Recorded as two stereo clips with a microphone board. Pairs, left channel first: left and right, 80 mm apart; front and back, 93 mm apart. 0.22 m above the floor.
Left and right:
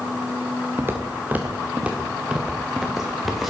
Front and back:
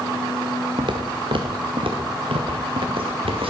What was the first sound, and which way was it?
Footsteps, 150° right.